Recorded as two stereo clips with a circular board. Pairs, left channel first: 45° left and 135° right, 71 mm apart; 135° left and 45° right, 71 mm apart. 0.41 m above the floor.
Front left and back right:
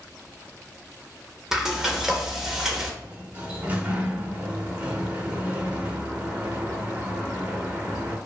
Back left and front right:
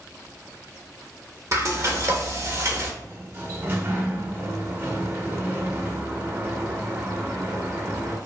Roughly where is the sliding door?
Right.